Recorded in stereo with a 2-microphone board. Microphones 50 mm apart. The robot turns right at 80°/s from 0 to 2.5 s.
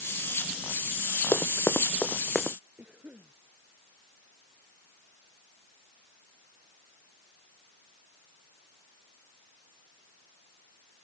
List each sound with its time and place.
1.3 s running footsteps: 65° left (ahead or behind); by 2.6 s 5° left (ahead or behind)
2.8 s a cough: 30° right (ahead or behind)